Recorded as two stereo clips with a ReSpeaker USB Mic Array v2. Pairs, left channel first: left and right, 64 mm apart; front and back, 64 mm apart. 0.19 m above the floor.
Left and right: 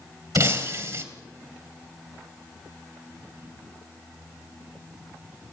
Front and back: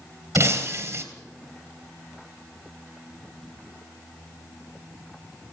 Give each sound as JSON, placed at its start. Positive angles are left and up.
{"t": 0.3, "sound": "breaking glass", "azimuth_deg": -130, "distance_m": 2.5}